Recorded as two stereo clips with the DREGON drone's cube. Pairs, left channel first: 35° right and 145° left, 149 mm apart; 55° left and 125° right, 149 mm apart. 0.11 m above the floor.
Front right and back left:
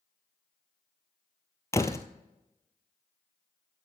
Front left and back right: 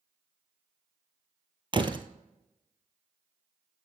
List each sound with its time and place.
1.7 s a door slam: 95° right, 1.1 m